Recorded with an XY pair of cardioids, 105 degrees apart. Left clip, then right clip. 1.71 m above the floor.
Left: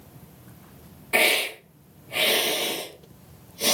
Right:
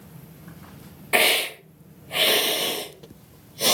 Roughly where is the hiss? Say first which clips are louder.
Right 1 dB; ahead right.